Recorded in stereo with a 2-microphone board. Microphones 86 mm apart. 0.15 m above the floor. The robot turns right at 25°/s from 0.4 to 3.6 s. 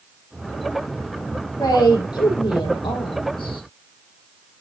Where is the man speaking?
45° left, 4 m; by 3.6 s 95° left, 4 m.